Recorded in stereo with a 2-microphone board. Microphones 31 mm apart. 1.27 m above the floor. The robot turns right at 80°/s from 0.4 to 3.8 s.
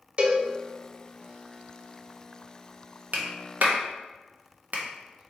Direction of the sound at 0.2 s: 40° right (ahead or behind).